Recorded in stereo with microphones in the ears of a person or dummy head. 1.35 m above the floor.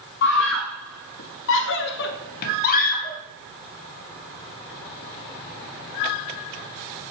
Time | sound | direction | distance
0.2 | a scream | 55° left (ahead or behind) | 1.1 m